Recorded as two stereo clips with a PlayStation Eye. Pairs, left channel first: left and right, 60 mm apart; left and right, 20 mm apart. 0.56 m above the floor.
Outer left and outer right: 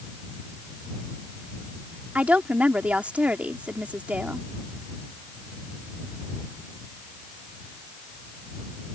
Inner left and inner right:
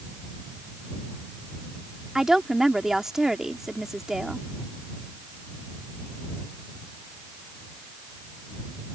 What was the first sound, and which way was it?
A woman speaking, 25° right (ahead or behind).